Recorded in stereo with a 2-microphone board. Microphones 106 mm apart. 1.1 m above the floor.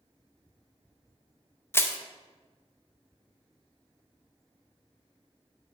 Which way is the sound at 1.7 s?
20° left (ahead or behind).